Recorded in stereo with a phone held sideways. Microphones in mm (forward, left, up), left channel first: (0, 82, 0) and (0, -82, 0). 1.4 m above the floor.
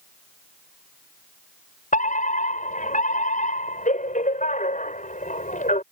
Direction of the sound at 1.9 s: 50° left (ahead or behind).